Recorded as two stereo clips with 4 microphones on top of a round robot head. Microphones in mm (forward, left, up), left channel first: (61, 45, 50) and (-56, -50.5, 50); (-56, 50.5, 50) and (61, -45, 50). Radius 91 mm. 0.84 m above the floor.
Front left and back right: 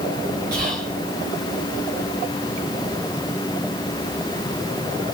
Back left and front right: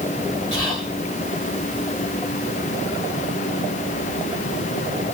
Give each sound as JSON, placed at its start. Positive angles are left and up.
{"t": 0.5, "sound": "whispering", "azimuth_deg": -165, "distance_m": 2.0}